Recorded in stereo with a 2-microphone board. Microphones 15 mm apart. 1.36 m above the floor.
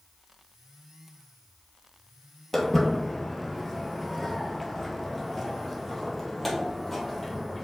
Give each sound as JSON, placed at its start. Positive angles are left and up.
{"t": 2.5, "sound": "footsteps", "side_deg": 5, "distance_m": 1.5}